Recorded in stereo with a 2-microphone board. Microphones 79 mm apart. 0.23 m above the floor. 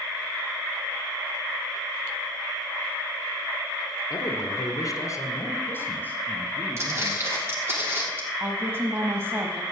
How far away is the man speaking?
About 2 m.